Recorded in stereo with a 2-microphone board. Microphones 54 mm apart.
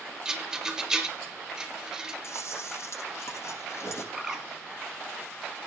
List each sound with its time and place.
0.2 s a rattle: 10° right (ahead or behind), 3 m
2.2 s chewing: 55° left (ahead or behind), 6 m
4.1 s a bird: 10° right (ahead or behind), 3 m